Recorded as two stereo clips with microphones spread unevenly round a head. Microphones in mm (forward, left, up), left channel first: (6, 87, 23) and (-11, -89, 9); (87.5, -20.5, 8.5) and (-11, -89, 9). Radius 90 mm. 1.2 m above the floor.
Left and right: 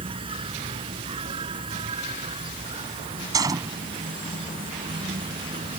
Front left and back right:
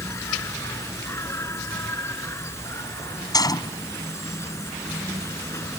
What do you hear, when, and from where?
0.0 s an insect: 30° right
3.3 s a gunshot: 25° right